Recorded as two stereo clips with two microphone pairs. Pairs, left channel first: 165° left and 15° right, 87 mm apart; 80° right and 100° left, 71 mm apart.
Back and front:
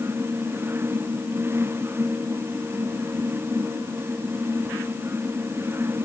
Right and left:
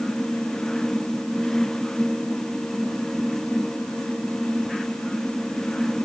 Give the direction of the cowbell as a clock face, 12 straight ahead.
I don't hear a cowbell.